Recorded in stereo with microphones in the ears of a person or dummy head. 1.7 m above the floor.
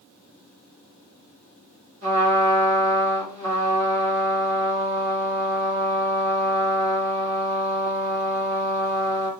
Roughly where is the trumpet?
Right.